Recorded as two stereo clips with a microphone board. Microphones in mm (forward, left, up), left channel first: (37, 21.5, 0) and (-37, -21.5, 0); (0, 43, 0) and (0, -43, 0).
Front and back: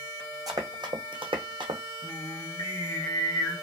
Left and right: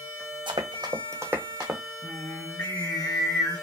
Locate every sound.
0.5 s running footsteps: 105° right, 0.8 m; by 1.8 s straight behind, 0.8 m
2.0 s singing: 20° left, 1.0 m